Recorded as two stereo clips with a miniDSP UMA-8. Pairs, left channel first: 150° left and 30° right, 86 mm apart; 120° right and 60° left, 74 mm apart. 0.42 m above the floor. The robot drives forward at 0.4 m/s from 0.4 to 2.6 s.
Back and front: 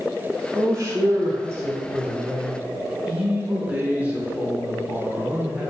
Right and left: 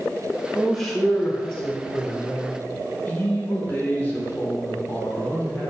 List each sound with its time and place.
0.5 s a man speaking: 35° right, 1.4 m; by 5.7 s 90° right, 1.1 m